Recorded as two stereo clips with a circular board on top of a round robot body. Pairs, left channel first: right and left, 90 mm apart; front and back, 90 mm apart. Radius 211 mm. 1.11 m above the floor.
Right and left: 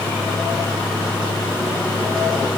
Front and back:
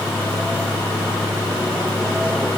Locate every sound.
Only background noise.